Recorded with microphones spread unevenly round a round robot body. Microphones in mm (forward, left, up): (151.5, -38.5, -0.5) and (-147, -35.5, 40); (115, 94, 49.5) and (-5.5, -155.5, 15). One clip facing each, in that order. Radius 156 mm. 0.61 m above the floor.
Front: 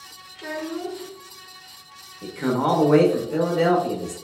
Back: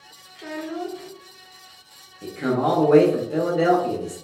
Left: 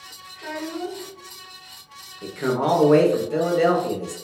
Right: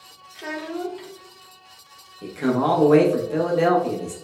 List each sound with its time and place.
0.3 s a child speaking: 80° right, 0.7 m
2.2 s a man speaking: 50° right, 0.6 m